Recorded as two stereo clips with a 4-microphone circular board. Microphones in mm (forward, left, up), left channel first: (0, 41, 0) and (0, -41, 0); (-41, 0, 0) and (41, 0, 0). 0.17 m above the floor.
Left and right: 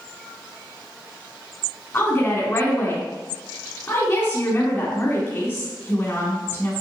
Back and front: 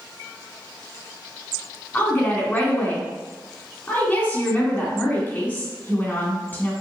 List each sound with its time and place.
1.9 s a woman speaking: 130° left, 2.0 m